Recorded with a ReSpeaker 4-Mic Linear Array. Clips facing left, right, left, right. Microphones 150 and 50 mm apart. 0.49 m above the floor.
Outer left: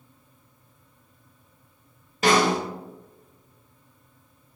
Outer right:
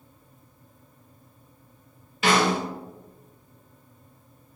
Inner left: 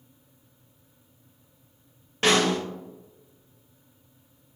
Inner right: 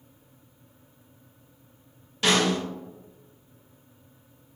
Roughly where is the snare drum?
Left.